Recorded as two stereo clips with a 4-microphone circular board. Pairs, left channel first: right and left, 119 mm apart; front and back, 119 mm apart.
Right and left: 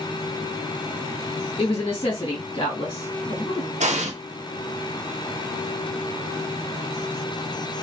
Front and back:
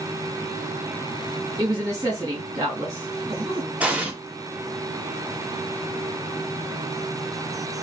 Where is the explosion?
100° left, 0.6 m.